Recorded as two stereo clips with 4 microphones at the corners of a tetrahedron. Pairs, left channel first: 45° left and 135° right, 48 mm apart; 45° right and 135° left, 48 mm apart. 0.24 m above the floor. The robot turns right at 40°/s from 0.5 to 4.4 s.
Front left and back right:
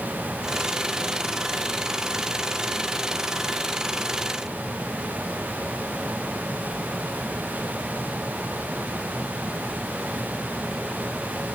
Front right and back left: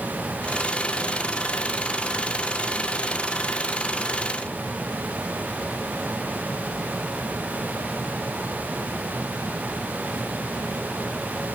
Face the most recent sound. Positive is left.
No sound to turn to.